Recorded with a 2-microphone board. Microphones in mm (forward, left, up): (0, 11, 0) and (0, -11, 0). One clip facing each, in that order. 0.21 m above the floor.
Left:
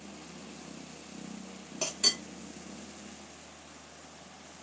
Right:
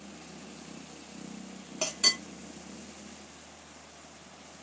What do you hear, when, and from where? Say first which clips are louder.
1.8 s a clink: right 2 dB; 15° right (ahead or behind), 0.8 m